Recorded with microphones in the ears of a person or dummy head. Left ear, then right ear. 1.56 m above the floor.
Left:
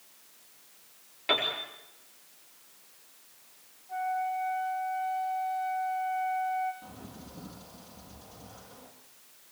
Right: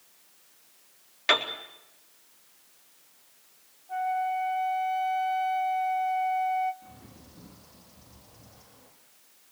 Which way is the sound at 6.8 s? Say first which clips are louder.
Left 4 dB; 55° left (ahead or behind).